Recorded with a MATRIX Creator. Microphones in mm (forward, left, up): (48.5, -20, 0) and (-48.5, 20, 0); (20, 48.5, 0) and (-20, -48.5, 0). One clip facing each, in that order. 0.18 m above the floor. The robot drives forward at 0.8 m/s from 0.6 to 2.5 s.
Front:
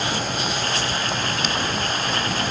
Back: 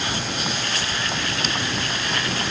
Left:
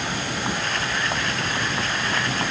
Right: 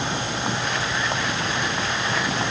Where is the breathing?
I don't hear breathing.